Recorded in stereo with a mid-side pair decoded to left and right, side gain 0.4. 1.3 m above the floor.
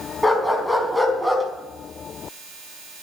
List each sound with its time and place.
0.2 s a dog barking: straight ahead, 4.5 m; by 1.4 s 15° right, 4.5 m